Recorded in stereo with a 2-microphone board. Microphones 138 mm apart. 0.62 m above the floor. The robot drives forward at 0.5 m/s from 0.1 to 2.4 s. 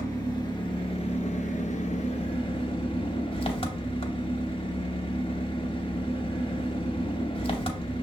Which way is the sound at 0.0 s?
25° left (ahead or behind).